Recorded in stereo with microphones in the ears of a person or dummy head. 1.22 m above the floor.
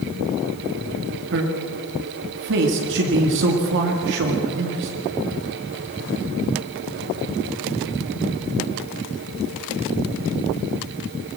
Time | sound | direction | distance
1.3 | a man speaking | 65° right (ahead or behind) | 2 m